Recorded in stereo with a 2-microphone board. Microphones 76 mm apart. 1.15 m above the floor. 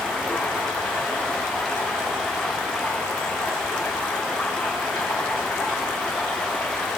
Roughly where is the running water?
Centre.